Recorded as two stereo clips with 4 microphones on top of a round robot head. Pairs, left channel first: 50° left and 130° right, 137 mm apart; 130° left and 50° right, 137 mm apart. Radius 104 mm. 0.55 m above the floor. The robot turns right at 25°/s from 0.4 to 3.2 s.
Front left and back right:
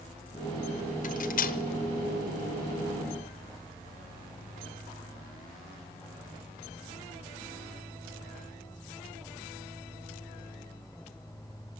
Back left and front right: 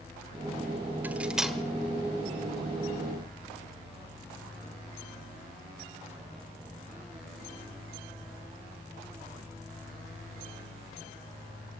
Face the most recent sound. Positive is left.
turn(degrees=80)